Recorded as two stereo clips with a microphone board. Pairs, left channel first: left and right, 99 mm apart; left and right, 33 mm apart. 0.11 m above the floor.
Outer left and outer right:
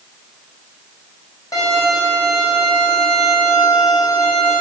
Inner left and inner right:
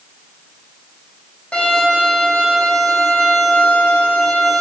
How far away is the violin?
About 2.5 m.